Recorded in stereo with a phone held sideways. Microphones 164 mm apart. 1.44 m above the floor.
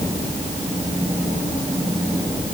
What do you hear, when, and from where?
Only background noise.